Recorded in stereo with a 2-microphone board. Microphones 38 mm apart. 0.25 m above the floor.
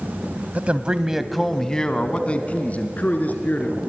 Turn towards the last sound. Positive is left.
turn(degrees=50)  # may be behind; listen again after turning